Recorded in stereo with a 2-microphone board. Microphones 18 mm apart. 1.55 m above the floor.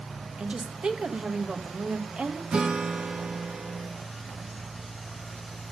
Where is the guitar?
50° right (ahead or behind), 1.6 m.